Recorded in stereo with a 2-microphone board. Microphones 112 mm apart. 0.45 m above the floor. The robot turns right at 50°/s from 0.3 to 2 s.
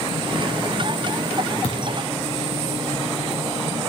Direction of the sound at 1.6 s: 50° left (ahead or behind).